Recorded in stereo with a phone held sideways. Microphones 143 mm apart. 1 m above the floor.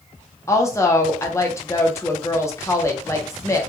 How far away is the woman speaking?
About 0.6 m.